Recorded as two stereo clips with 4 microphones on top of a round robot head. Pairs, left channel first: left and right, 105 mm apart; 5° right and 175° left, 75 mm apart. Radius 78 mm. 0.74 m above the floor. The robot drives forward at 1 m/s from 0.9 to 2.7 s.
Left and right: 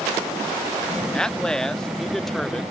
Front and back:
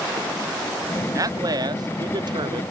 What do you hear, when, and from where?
1.1 s a man speaking: 170° left; by 2.6 s 175° left